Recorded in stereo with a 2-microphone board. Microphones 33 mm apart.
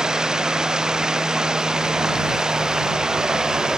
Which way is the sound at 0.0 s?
20° right (ahead or behind).